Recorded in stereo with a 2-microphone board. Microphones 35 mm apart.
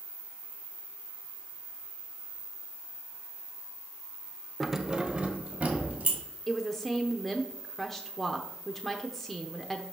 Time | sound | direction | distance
4.6 | keys jangling | 5° left (ahead or behind) | 0.7 m
6.5 | a woman speaking | 10° left (ahead or behind) | 0.7 m